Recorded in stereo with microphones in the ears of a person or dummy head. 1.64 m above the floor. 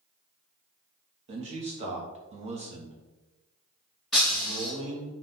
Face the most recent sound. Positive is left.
turn(degrees=5)  # may be behind; listen again after turning